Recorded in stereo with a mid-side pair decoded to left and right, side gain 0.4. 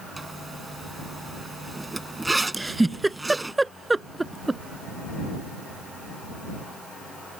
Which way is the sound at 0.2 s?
20° right.